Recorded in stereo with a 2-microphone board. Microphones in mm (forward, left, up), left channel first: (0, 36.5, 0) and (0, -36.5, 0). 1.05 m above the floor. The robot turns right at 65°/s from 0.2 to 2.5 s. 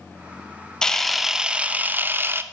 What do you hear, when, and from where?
0.8 s a camera shutter: 10° left (ahead or behind), 0.6 m; by 2.4 s 30° right (ahead or behind), 0.6 m